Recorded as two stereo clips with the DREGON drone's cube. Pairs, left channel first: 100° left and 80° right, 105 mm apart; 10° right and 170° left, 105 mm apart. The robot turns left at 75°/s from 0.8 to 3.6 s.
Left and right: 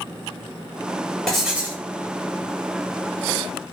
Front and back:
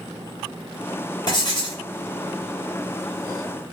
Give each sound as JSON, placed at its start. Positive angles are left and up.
{"t": 1.3, "sound": "writing", "azimuth_deg": 20, "distance_m": 1.5}